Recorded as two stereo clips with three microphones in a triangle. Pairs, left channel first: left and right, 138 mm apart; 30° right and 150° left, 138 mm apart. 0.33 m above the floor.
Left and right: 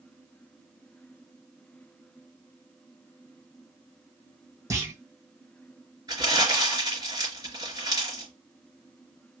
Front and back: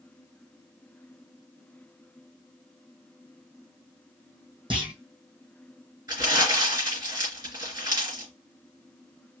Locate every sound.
4.7 s a clunk: 155° right, 2.5 m
6.1 s crumpling: 150° right, 3 m